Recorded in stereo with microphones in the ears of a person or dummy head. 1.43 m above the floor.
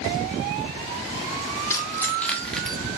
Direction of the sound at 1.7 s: 15° left (ahead or behind).